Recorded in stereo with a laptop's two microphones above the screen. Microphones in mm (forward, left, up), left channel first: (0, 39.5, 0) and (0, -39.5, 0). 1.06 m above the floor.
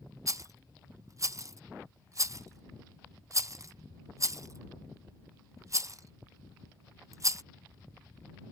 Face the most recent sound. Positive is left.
turn(degrees=-40)  # may be behind; listen again after turning